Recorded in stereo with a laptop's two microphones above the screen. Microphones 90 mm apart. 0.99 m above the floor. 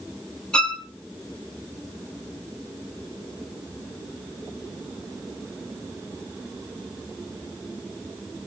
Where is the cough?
No cough in this recording.